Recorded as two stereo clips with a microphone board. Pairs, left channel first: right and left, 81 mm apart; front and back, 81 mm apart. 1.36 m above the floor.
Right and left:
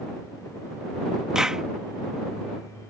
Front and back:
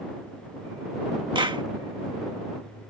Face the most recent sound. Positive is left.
turn(degrees=170)